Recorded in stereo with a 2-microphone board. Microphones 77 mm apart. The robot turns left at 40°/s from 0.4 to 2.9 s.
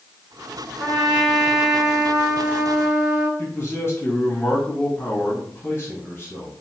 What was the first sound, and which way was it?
A trumpet, 15° left.